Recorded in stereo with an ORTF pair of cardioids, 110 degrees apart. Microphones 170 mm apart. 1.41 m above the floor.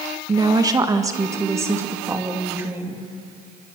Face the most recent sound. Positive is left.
turn(degrees=-15)